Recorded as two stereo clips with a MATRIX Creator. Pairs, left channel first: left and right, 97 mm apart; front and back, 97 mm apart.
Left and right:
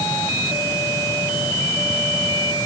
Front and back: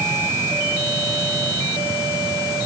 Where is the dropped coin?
I don't hear a dropped coin.